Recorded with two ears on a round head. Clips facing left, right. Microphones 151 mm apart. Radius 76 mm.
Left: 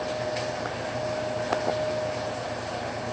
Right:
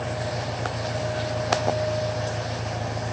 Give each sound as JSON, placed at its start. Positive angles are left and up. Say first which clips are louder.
{"t": 0.0, "sound": "an engine running", "louder": "left 1 dB", "side_deg": -80}